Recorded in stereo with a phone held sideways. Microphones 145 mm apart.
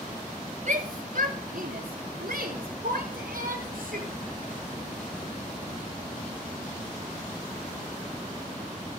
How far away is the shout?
About 3 m.